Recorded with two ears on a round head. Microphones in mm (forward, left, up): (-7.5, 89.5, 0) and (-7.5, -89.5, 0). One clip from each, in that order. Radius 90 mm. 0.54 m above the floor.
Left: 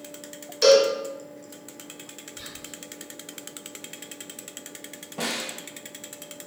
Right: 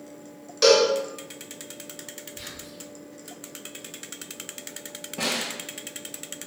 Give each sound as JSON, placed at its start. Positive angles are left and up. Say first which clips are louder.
{"t": 0.6, "sound": "a cowbell", "louder": "left 1 dB", "side_deg": 10, "distance_m": 0.7}
{"t": 2.4, "sound": "whispering", "louder": "even", "side_deg": 15, "distance_m": 1.2}
{"t": 5.2, "sound": "a snare drum", "louder": "right 2 dB", "side_deg": 25, "distance_m": 0.9}